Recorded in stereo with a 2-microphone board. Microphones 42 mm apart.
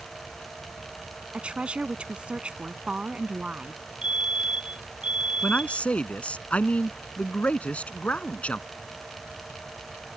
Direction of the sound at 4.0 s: 25° right (ahead or behind).